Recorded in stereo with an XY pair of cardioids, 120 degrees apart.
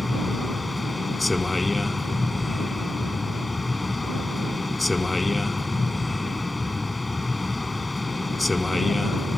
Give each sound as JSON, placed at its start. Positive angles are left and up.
{"t": 0.0, "sound": "a vehicle", "azimuth_deg": 15}